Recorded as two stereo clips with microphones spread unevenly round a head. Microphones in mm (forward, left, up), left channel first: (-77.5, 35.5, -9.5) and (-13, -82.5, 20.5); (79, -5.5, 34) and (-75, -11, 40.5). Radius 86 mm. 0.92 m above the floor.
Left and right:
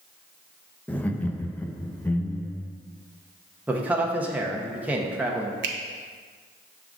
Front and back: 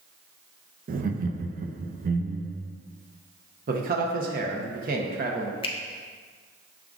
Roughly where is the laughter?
Behind.